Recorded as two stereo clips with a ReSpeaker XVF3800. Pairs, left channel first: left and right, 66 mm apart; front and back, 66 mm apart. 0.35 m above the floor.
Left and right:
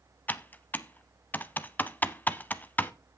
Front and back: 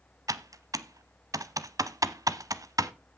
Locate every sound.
0.3 s typing on a keyboard: 150° left, 0.5 m